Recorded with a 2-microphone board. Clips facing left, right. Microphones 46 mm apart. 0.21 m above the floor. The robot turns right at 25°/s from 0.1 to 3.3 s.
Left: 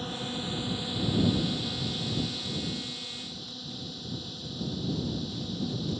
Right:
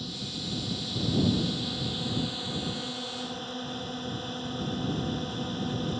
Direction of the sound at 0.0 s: 140° left.